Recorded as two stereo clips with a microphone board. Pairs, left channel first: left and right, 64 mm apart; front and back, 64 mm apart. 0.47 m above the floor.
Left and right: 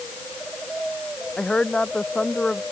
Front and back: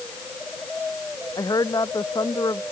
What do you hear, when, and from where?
1.4 s a woman speaking: 15° left